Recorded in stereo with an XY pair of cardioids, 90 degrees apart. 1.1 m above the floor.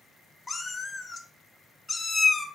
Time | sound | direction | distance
0.5 | a cat meowing | 25° left | 0.8 m